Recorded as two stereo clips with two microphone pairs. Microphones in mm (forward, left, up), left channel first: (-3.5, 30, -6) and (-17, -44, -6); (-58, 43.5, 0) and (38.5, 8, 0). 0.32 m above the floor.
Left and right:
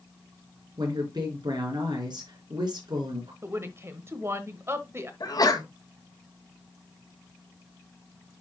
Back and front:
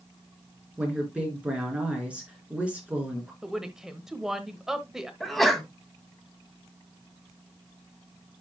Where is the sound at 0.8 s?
100° right, 4 m.